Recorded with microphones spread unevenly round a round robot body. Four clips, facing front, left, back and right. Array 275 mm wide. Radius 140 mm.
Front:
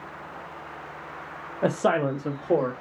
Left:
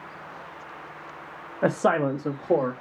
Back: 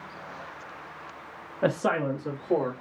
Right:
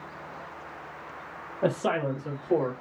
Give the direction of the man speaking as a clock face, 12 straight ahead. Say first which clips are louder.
Left 4 dB, front 2 dB; 10 o'clock.